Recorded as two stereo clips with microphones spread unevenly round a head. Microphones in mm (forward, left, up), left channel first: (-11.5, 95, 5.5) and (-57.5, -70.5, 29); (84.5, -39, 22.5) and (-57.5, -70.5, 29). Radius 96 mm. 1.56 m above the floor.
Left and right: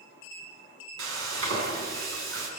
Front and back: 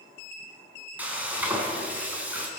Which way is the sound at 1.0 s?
90° right.